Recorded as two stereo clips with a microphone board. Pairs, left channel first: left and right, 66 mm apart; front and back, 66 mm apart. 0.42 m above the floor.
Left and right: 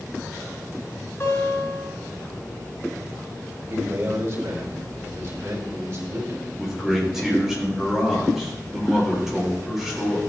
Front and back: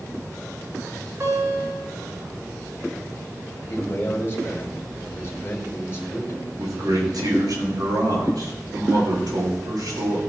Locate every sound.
1.2 s a guitar: 145° left, 6.5 m
3.7 s a man speaking: 60° right, 4 m
6.6 s a man speaking: 175° right, 6 m